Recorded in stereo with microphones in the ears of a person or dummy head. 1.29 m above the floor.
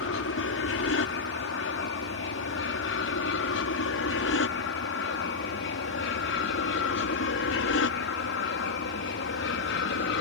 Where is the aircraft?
65° left (ahead or behind); by 10.2 s 60° left (ahead or behind).